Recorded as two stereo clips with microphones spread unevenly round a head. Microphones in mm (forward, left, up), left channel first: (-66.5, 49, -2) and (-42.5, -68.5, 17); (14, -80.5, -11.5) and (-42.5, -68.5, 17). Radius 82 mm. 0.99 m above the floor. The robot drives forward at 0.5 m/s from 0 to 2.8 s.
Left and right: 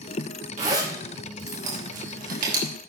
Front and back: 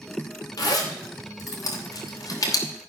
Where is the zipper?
25° right, 3 m; by 2.7 s 35° right, 2 m.